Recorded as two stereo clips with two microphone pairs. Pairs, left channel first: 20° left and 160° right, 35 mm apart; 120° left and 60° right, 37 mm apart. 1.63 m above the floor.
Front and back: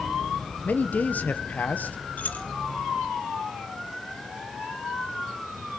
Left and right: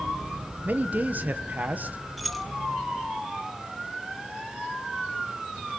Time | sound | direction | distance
0.7 | a man speaking | 15° right | 1.2 m
2.2 | keys jangling | 35° left | 1.1 m